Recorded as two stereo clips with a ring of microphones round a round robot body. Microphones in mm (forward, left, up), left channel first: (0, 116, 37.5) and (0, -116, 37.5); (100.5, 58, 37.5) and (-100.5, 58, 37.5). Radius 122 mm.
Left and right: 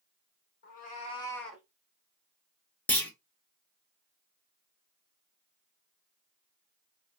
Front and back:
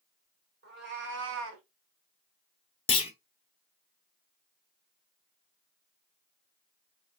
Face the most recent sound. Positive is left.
turn(degrees=15)